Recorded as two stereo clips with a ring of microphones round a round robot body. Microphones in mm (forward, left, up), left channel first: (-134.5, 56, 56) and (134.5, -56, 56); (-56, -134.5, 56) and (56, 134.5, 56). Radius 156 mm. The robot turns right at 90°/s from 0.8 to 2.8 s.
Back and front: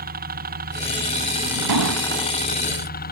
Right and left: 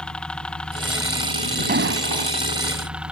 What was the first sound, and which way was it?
A helicopter, 30° right.